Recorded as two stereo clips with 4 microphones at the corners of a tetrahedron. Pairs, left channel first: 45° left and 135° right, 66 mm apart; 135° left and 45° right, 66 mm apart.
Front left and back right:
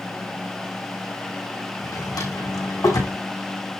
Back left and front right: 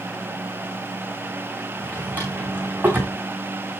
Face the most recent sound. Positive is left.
turn(degrees=20)